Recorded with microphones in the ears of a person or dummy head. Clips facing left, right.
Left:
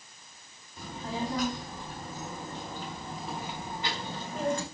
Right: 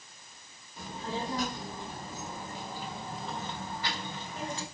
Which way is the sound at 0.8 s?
30° right (ahead or behind).